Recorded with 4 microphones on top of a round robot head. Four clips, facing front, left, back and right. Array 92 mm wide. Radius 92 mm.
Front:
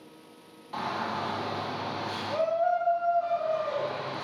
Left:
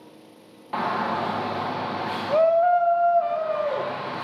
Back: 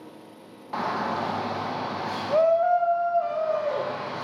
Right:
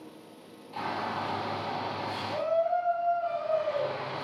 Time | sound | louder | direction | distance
0.7 | a shout | left 8 dB, back 4 dB | 120° left | 1.6 m